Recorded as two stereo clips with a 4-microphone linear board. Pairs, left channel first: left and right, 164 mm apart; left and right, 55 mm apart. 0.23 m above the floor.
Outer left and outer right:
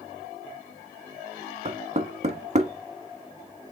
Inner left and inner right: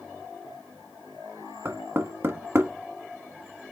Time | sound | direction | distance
1.6 | knocking | 45° right (ahead or behind) | 1.1 m